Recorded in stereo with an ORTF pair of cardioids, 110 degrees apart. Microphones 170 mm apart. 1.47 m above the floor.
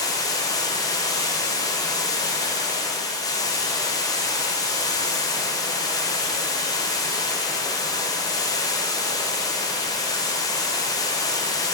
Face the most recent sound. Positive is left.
turn(degrees=20)